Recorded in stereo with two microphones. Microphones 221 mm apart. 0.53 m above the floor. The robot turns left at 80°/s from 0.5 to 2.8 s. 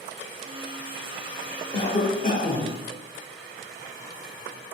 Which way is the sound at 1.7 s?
145° left.